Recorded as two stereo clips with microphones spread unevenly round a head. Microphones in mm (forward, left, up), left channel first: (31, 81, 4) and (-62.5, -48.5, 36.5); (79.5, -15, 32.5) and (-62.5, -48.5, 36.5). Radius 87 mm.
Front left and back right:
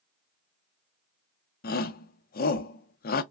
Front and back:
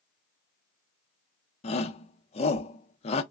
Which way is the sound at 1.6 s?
60° left.